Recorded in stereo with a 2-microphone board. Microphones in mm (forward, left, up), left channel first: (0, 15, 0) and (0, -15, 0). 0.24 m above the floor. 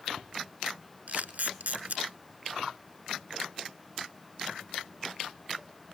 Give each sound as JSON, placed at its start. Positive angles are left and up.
{"t": 1.1, "sound": "a camera shutter", "side_deg": -75, "distance_m": 1.1}